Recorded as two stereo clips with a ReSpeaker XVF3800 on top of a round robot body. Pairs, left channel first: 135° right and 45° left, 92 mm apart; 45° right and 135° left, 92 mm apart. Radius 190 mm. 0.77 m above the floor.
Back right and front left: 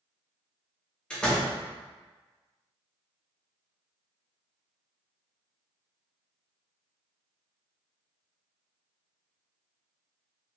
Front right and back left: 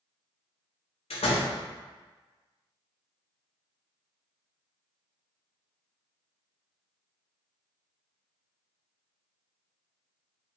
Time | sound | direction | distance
1.1 | a door slam | 55° right | 0.9 m